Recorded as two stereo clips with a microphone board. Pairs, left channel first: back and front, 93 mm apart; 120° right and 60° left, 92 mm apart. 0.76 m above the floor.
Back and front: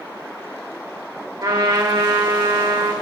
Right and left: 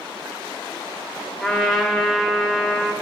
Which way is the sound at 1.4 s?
30° right.